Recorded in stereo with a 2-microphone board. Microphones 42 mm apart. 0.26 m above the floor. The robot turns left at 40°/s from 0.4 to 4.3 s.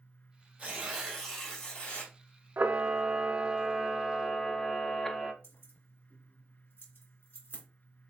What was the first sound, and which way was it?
Tearing paper, 145° right.